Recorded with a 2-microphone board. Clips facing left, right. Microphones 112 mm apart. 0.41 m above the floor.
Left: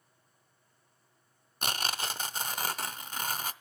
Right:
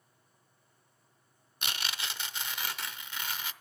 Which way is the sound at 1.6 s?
40° left (ahead or behind).